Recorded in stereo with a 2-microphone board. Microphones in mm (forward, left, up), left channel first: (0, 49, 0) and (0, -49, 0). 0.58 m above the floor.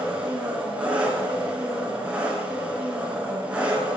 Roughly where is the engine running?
Centre.